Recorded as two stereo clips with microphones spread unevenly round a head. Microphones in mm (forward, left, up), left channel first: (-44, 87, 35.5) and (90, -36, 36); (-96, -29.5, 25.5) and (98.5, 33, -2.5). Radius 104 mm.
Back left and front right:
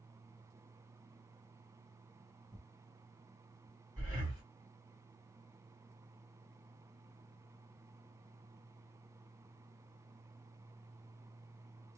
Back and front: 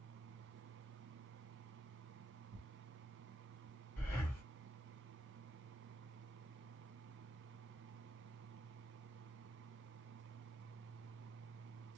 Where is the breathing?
95° right, 1.5 m.